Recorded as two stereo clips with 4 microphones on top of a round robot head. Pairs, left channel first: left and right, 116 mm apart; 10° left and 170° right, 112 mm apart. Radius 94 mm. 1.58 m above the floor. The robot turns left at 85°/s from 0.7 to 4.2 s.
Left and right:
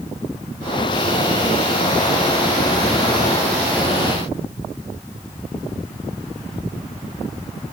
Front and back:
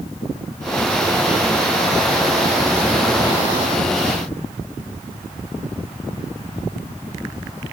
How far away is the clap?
No clap in this recording.